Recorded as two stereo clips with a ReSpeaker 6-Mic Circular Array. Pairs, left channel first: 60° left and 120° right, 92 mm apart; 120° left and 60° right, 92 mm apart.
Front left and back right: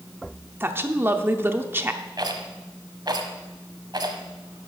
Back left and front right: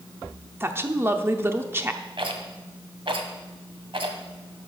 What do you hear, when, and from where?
0.6 s a woman speaking: 90° right, 0.7 m
2.2 s a rattle: 80° right, 1.1 m